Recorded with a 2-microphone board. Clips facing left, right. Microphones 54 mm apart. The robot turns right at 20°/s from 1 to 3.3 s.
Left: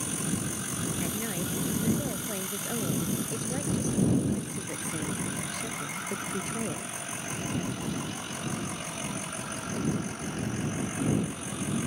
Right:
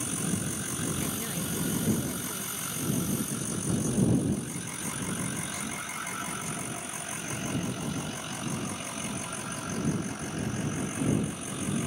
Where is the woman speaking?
5° left; by 7.1 s 55° left.